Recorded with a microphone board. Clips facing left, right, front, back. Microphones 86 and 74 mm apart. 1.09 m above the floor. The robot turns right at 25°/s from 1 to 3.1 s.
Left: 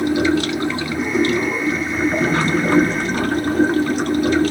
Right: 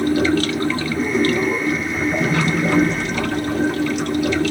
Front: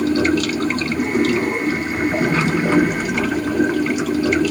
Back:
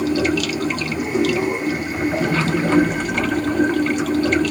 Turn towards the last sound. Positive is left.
turn(degrees=80)